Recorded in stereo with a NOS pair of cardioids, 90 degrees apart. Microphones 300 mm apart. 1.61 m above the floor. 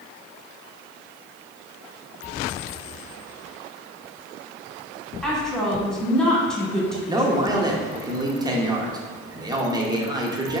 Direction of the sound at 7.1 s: 15° right.